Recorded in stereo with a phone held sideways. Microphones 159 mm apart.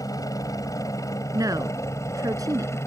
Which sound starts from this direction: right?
A woman speaking, at 1.3 s.